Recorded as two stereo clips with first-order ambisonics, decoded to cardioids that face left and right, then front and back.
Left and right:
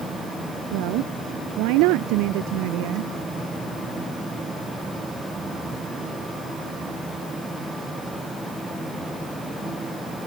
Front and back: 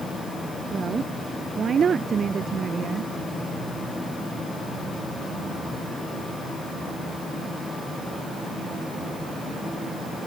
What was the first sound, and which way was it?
A woman speaking, 110° right.